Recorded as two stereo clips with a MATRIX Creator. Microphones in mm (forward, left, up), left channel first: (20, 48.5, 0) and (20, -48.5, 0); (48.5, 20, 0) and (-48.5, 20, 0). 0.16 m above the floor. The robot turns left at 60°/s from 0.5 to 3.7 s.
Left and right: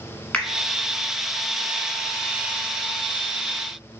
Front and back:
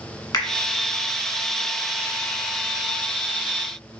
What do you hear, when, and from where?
0.3 s a finger snap: 20° left, 1.2 m